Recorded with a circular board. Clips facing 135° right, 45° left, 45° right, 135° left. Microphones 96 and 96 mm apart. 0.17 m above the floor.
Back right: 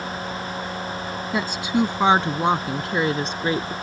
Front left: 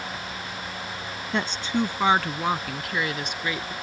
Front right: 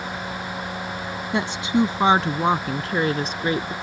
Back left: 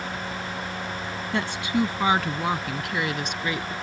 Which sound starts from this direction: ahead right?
A woman speaking, at 1.3 s.